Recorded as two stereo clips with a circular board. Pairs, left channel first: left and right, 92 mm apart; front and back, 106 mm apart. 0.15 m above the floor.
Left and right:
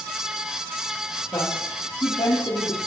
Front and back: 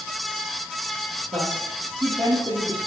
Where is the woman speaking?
145° left, 4.5 m; by 2.9 s 125° left, 4.5 m.